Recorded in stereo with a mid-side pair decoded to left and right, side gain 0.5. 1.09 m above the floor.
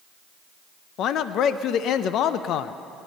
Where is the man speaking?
70° left, 0.5 m.